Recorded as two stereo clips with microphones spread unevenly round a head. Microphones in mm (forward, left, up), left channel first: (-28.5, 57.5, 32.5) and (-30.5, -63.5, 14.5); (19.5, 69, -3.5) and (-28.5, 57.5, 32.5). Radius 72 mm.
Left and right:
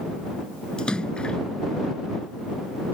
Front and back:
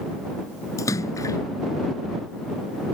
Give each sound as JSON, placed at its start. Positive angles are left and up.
{"t": 0.8, "sound": "a splash", "azimuth_deg": 5}